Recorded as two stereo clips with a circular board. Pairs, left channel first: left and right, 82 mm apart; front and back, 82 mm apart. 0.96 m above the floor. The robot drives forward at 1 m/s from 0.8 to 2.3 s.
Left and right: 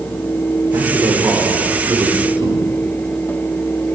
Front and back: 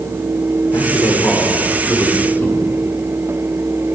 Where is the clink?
I don't hear a clink.